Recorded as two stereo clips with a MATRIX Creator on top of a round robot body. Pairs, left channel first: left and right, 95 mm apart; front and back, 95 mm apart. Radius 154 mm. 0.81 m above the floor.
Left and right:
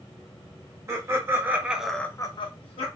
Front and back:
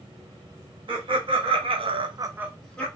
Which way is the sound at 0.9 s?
150° right.